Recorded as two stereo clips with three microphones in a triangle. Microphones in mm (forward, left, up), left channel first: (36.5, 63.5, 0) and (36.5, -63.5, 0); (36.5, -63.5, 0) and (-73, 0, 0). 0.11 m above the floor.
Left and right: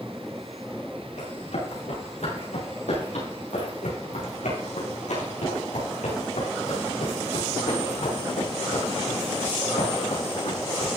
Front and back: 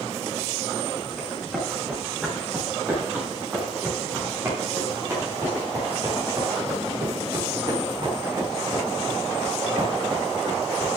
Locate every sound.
1.2 s running footsteps: 65° left, 7.5 m; by 10.9 s 110° left, 6.5 m